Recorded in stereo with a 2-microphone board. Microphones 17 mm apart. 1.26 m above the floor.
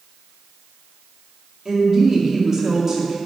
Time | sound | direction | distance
1.6 | a woman speaking | 30° right (ahead or behind) | 2 m